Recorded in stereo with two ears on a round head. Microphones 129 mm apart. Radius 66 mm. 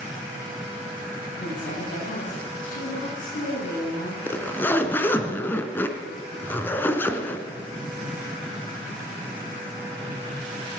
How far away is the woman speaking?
About 8 m.